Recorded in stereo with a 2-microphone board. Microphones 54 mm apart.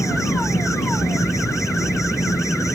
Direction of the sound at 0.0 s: 70° left (ahead or behind).